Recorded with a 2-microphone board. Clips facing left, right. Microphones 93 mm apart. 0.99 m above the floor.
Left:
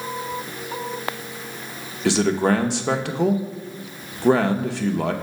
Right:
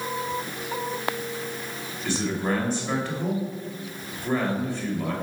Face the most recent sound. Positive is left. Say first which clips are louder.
# left 8 dB
turn(degrees=70)  # may be behind; listen again after turning